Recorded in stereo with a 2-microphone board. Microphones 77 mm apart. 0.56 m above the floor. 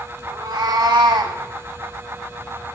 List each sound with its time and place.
0.3 s a cat meowing: 60° right (ahead or behind), 1.3 m; by 1.4 s 65° right (ahead or behind), 0.7 m